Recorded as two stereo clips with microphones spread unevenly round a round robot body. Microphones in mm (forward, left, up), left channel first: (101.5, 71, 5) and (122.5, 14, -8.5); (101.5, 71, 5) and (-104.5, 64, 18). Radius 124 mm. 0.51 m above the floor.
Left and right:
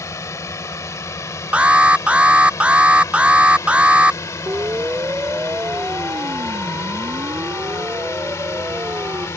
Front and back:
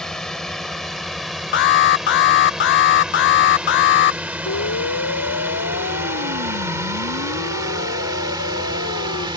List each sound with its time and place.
0.0 s a drone: 90° left; by 9.4 s 120° left
1.5 s an alarm: 5° right
4.5 s a siren: 15° right